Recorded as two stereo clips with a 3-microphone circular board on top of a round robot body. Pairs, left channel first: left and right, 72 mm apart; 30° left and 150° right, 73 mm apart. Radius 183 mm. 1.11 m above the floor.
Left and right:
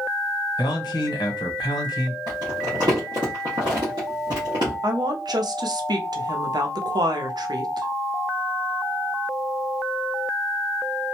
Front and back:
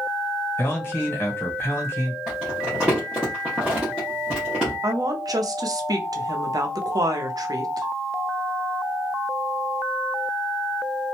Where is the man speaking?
90° left, 1.4 m.